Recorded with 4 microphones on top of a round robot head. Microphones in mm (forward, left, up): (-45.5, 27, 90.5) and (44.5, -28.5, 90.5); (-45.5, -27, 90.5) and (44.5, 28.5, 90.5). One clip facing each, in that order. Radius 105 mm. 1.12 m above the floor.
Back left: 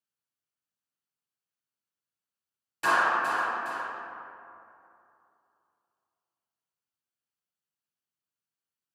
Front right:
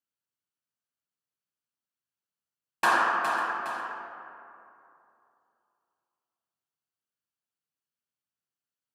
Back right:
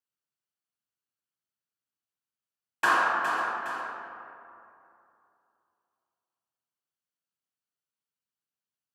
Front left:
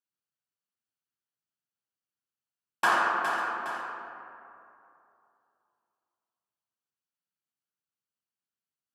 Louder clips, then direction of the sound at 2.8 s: Front right 1 dB, back right 1 dB; 35° right.